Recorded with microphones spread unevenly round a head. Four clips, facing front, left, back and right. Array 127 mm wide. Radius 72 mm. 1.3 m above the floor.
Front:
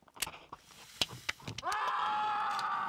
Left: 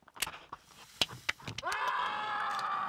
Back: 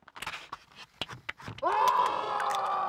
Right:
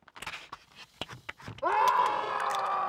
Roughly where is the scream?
Behind right.